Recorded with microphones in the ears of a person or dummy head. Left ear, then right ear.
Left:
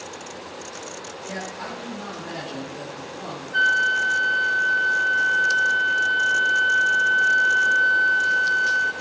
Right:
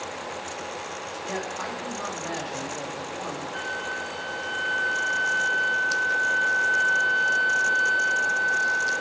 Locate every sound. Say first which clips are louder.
1.2 s a man speaking: right 1 dB; 55° right (ahead or behind), 3 m
3.5 s a flute: left 15 dB; 50° left (ahead or behind), 2.5 m